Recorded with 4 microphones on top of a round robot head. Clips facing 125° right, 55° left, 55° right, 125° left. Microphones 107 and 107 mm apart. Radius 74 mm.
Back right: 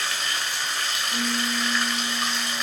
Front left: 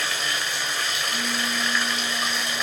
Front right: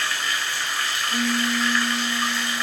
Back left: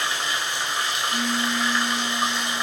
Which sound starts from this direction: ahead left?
Running water, at 0.0 s.